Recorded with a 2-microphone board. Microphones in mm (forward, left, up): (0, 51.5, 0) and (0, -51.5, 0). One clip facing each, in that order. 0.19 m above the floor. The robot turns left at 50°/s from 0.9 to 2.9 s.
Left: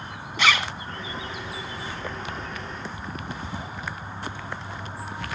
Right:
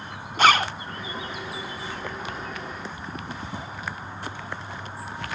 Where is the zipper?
45° right (ahead or behind), 0.5 m.